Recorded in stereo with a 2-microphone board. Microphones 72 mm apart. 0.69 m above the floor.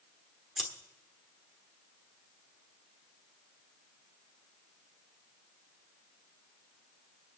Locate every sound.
0.6 s scissors: 5° right (ahead or behind), 1.3 m